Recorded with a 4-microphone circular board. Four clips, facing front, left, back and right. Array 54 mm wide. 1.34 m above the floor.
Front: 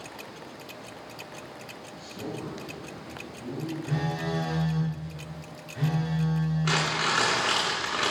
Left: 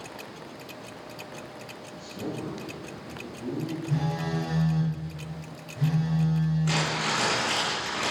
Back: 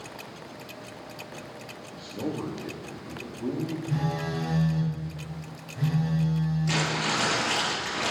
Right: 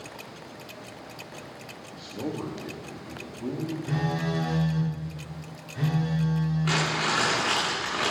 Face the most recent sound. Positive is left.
turn(degrees=-30)